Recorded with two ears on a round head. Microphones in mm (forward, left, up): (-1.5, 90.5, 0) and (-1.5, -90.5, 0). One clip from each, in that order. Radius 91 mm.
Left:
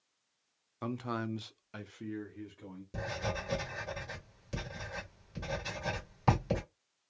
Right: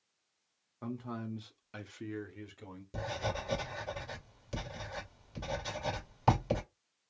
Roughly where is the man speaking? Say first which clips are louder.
Left 5 dB; left.